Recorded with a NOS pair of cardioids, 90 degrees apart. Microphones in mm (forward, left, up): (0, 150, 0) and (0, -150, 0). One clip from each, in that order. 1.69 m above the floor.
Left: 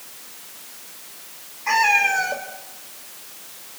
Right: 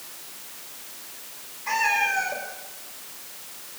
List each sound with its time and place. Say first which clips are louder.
1.7 s a cat meowing: left 5 dB; 40° left, 3.5 m